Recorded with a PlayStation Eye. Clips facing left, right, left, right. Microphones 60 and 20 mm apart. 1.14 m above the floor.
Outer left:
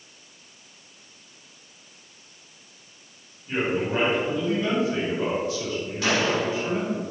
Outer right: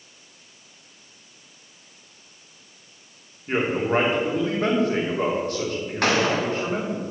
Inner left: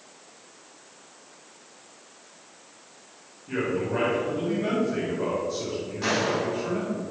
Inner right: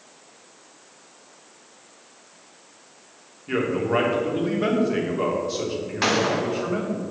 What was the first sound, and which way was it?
A man speaking, 55° right (ahead or behind).